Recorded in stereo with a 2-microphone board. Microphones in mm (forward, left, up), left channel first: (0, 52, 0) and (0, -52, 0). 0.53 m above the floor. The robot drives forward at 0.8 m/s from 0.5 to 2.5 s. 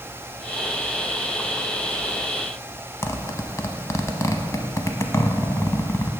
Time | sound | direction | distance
3.0 | a zipper | 30° left (ahead or behind) | 0.6 m